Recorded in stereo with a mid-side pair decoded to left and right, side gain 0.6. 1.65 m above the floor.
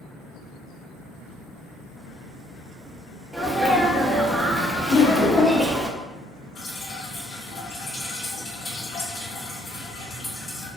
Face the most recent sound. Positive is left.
turn(degrees=60)